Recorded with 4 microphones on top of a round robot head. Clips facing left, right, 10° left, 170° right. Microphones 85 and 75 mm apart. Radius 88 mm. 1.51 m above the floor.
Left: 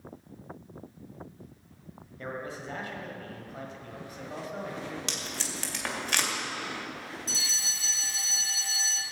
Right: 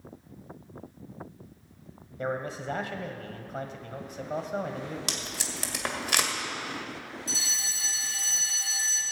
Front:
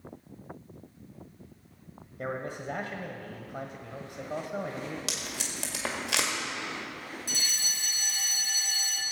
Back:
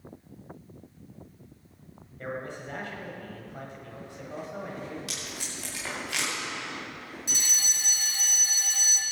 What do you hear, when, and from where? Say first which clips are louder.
2.2 s a man speaking: right 5 dB, front 1 dB; 30° right, 1.2 m
5.1 s tape being pulled: even, front 2 dB; 15° right, 1.9 m
7.3 s a fire alarm: right 1 dB, back 3 dB; 120° left, 3.5 m